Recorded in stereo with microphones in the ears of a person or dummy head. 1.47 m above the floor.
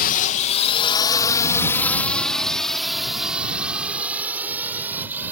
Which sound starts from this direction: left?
A drone, at 0.0 s.